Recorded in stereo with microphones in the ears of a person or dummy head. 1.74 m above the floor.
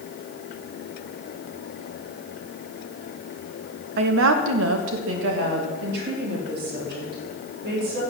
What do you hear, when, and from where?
4.0 s a woman speaking: 65° right (ahead or behind), 1.5 m; by 8.0 s 50° right (ahead or behind), 7 m